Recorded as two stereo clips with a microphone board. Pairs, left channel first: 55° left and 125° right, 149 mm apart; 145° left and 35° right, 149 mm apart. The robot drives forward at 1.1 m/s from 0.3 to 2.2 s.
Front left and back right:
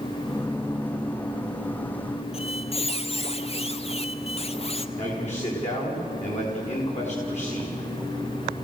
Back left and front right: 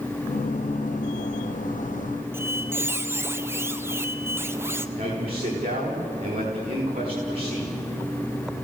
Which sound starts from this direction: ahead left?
A squeak, at 2.3 s.